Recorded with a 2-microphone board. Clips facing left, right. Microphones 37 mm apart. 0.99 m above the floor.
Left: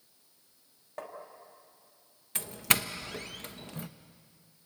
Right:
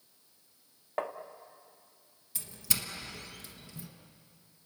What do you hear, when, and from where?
1.0 s tapping: 35° right (ahead or behind), 1.3 m
2.4 s a doorbell: 55° left (ahead or behind), 1.0 m